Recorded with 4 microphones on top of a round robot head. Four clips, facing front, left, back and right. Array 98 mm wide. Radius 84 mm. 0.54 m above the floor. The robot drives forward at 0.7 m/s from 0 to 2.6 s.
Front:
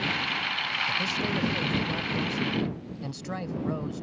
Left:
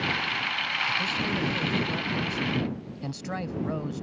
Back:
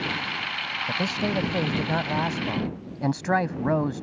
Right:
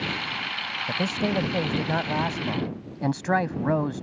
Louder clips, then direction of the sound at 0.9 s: Right 3 dB, back 6 dB; 125° right.